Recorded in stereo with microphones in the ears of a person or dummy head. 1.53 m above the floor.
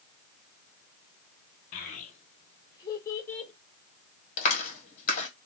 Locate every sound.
1.7 s a child speaking: 45° left (ahead or behind), 1.3 m; by 3.5 s 5° left (ahead or behind), 1.4 m
4.4 s a clap: 35° left (ahead or behind), 1.4 m